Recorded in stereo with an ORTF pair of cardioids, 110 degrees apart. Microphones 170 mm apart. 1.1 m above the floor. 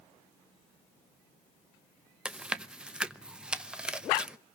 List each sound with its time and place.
2.2 s chewing: 5° right, 0.9 m